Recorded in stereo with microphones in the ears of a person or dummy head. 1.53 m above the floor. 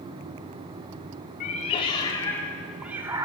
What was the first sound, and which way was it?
A cat meowing, 35° left (ahead or behind).